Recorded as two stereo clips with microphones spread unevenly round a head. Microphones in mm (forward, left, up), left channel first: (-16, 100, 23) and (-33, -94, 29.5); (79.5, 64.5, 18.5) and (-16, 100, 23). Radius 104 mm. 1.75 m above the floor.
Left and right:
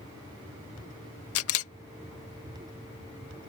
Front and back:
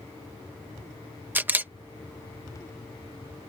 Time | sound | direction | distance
1.4 | a camera shutter | 90° left | ?